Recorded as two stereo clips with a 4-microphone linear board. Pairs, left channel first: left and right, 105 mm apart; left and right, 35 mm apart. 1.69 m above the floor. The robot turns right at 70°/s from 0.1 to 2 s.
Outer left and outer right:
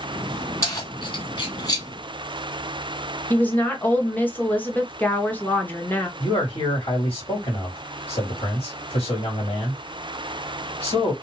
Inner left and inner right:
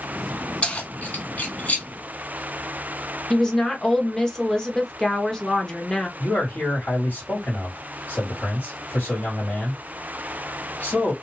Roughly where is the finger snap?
No finger snap in this recording.